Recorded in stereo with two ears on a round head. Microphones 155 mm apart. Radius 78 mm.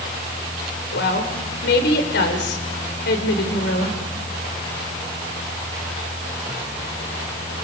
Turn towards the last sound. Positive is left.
turn(degrees=70)  # may be behind; listen again after turning